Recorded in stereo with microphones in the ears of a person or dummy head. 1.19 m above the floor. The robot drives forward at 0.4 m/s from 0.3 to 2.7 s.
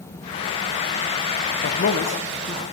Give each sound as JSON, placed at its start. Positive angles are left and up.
{"t": 1.6, "sound": "a man speaking", "side_deg": 55, "distance_m": 0.5}